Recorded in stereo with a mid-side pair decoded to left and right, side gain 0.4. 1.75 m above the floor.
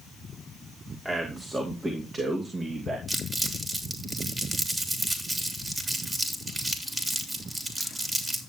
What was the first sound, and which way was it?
A man speaking, 25° right.